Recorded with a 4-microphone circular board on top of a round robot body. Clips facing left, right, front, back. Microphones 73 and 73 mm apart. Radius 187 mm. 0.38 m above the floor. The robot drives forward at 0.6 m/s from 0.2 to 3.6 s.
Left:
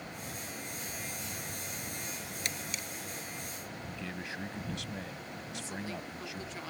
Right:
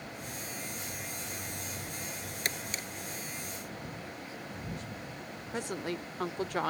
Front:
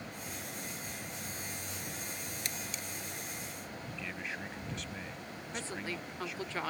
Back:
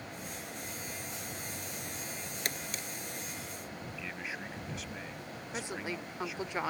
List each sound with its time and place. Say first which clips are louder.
2.5 s a camera shutter: right 4 dB, back 5 dB; 140° right
3.9 s a man speaking: left 2 dB, even; 95° left
5.5 s a woman speaking: right 6 dB, back 2 dB; 110° right